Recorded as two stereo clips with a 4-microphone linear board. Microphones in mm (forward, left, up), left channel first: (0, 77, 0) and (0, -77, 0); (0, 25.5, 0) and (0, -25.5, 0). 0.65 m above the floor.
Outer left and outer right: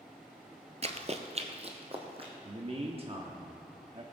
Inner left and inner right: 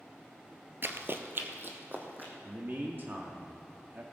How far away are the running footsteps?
About 0.8 m.